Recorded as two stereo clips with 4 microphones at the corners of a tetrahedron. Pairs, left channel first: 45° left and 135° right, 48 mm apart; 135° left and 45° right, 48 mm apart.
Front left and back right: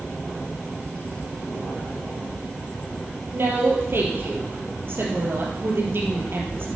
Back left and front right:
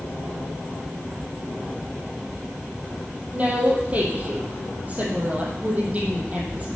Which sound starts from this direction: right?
A woman speaking, at 3.3 s.